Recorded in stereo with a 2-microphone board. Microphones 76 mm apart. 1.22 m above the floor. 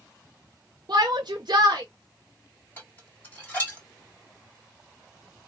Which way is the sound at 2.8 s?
25° left (ahead or behind).